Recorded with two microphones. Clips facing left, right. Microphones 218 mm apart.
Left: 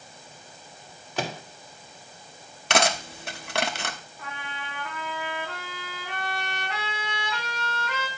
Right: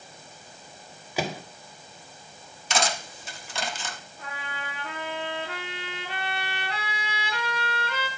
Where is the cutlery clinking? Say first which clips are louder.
Left 4 dB; 65° left (ahead or behind), 0.9 m.